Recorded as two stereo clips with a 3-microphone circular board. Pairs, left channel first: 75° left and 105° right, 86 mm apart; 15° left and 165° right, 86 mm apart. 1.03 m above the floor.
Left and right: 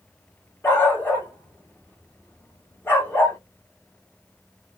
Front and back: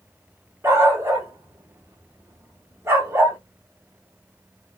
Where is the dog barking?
135° left, 1.0 m.